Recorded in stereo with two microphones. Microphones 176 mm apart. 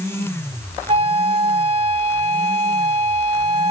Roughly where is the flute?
Right.